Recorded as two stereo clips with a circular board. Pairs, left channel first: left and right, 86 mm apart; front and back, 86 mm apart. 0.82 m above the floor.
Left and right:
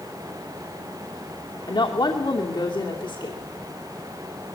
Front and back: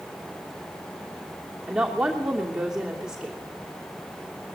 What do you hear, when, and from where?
1.7 s a woman speaking: 100° left, 2.5 m